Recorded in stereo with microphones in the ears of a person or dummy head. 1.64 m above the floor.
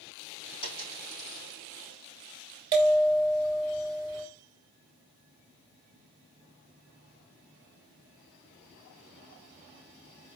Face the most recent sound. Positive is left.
turn(degrees=-20)  # may be behind; listen again after turning